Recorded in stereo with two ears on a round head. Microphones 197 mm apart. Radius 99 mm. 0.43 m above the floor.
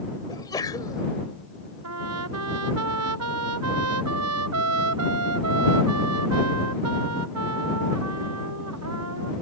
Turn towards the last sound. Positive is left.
turn(degrees=-80)